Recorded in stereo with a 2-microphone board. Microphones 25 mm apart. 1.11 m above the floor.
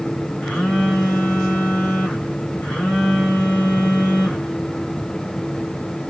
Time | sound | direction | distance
0.4 | a phone buzzing | 75° left (ahead or behind) | 3 m